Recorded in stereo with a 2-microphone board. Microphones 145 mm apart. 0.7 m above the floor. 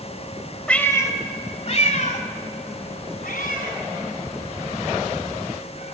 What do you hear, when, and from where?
0.7 s a cat meowing: 10° left (ahead or behind), 1.5 m; by 5.9 s 85° left, 5.5 m